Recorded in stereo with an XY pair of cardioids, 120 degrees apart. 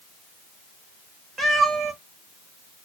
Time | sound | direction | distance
1.4 | a cat meowing | 35° right | 1.5 m